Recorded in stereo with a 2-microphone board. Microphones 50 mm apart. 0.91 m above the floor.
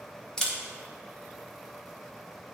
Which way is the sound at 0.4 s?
15° left (ahead or behind).